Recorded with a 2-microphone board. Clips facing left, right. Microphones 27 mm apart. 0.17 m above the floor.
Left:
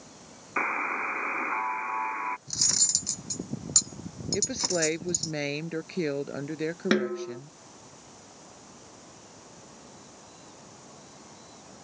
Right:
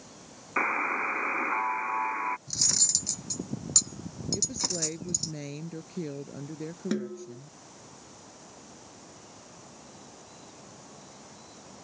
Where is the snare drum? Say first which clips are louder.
Left 7 dB; 55° left (ahead or behind).